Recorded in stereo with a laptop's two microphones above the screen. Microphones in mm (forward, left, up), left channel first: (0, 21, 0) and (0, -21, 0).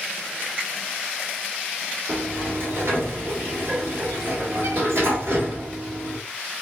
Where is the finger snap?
50° right (ahead or behind), 2.5 m.